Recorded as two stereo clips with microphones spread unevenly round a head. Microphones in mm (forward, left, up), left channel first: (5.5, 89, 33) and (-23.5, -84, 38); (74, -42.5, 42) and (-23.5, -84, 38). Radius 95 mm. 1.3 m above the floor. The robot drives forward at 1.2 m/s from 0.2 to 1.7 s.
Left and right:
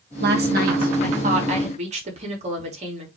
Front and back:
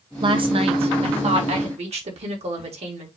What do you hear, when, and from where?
0.2 s a woman speaking: 120° right, 1.8 m; by 3.1 s 150° right, 3 m